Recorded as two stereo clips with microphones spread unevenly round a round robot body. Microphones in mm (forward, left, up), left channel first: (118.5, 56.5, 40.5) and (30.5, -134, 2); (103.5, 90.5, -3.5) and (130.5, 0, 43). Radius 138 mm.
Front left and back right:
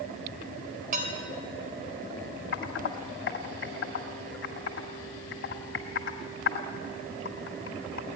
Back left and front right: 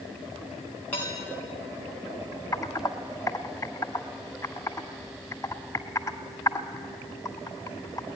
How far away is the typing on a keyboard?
About 1.8 m.